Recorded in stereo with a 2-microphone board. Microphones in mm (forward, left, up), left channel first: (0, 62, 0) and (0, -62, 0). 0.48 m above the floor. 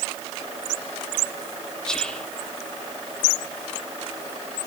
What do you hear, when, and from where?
1.9 s whispering: 5° left (ahead or behind), 0.7 m